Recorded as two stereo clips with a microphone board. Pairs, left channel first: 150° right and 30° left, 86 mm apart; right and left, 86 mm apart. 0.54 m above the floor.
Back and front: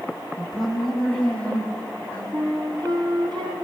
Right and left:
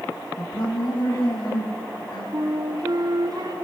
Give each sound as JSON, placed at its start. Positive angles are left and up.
{"t": 0.4, "sound": "a woman speaking", "azimuth_deg": -55, "distance_m": 4.5}
{"t": 2.3, "sound": "a flute", "azimuth_deg": 55, "distance_m": 3.0}